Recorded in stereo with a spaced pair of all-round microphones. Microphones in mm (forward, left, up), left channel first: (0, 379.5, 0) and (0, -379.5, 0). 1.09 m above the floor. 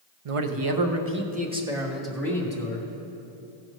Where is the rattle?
I don't hear a rattle.